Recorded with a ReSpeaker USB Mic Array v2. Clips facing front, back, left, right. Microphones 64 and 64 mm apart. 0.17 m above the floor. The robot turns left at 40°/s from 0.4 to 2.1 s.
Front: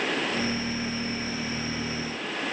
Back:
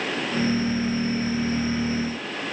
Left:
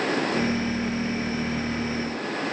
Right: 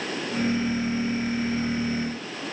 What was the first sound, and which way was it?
Only background noise.